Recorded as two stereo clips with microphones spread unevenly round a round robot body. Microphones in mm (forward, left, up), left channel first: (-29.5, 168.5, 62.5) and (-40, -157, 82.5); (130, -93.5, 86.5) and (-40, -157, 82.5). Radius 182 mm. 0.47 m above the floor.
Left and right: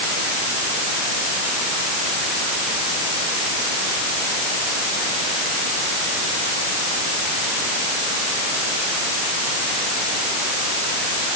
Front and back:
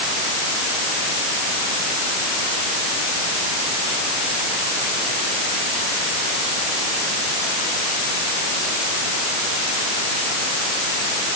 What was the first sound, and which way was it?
Only background noise.